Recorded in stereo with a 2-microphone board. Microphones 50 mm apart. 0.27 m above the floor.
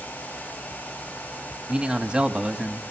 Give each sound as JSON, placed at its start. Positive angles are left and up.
{"t": 1.7, "sound": "a man speaking", "side_deg": -20, "distance_m": 1.4}